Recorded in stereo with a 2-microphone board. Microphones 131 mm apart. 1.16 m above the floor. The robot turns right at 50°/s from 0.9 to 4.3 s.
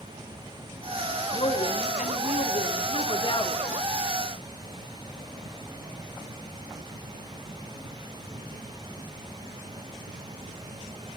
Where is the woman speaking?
40° left, 2.5 m; by 3.6 s 155° left, 2.5 m.